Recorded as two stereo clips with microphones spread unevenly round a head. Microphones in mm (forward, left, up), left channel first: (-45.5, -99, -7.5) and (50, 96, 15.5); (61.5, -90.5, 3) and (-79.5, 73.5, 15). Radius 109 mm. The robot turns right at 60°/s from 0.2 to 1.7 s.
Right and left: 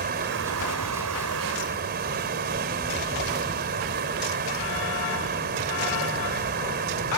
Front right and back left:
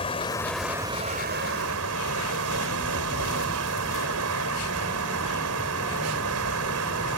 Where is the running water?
20° left; by 7.2 s 110° left.